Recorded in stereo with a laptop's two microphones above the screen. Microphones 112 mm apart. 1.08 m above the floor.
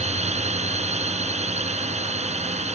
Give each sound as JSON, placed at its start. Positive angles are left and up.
{"t": 0.0, "sound": "a drone", "side_deg": -85}